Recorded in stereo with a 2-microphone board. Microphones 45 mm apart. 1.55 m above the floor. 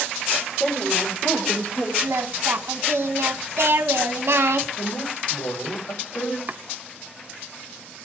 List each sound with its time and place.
0.6 s a woman speaking: 30° left (ahead or behind), 5.5 m; by 1.9 s 15° left (ahead or behind), 6.5 m
2.0 s singing: 75° right (ahead or behind), 1.9 m
4.8 s a woman speaking: 85° left, 6.5 m
6.5 s chopping: 40° right (ahead or behind), 0.7 m